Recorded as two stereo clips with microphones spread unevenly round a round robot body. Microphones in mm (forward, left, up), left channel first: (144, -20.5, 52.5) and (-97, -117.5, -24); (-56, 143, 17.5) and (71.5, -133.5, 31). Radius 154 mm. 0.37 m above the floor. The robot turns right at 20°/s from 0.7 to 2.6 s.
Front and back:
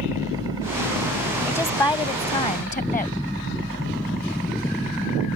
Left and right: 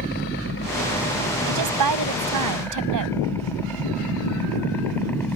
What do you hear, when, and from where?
0.0 s a helicopter: 150° left; by 5.4 s 160° right
1.5 s a woman speaking: 65° right; by 3.1 s 45° right